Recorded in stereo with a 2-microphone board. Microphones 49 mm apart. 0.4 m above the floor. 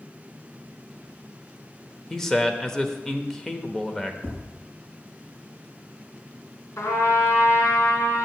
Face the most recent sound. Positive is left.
turn(degrees=70)  # may be behind; listen again after turning